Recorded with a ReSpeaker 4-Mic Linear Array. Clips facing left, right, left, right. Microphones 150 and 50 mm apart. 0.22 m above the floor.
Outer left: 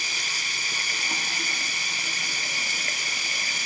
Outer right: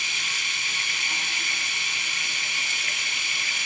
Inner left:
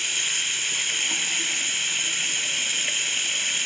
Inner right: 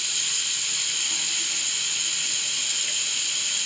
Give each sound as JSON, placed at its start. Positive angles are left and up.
{"t": 0.0, "sound": "running water", "side_deg": 45, "distance_m": 0.8}